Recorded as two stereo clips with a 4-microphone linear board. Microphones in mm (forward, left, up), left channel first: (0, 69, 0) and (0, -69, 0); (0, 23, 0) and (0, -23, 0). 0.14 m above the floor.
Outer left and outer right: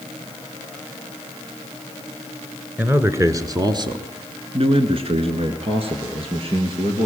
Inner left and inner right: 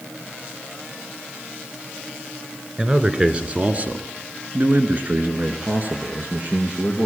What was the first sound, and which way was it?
A man speaking, 15° right (ahead or behind).